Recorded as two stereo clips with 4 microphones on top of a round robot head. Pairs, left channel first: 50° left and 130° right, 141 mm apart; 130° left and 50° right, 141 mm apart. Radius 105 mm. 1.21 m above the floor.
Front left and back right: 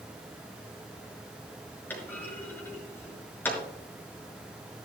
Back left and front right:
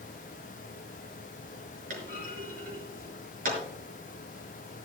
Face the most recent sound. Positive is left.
turn(degrees=-25)